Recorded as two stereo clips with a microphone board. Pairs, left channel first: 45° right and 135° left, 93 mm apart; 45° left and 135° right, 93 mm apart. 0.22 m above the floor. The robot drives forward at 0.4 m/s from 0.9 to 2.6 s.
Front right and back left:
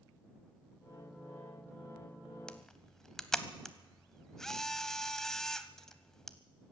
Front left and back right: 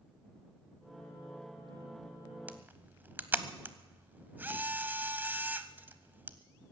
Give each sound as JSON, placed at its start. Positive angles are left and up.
{"t": 2.5, "sound": "a camera shutter", "azimuth_deg": -110, "distance_m": 0.7}